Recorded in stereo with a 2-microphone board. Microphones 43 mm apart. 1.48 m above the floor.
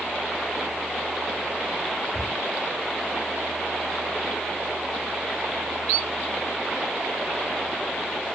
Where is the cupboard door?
75° right (ahead or behind), 3.5 m.